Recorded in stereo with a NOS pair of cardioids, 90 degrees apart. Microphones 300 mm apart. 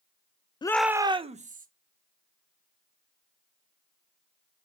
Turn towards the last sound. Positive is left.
turn(degrees=-25)